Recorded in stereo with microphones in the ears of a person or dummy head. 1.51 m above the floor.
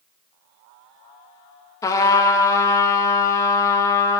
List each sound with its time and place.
1.8 s a trumpet: 15° left (ahead or behind), 1.1 m